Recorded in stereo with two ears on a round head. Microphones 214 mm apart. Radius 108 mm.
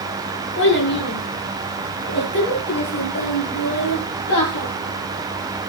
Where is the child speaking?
55° left (ahead or behind), 7 m; by 4.7 s 45° left (ahead or behind), 9.5 m.